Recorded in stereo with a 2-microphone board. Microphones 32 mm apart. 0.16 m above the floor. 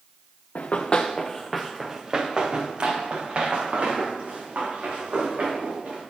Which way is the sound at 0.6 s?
50° left (ahead or behind).